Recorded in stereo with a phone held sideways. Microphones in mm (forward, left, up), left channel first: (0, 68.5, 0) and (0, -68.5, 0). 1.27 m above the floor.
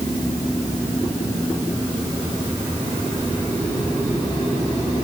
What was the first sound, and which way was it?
Only background noise.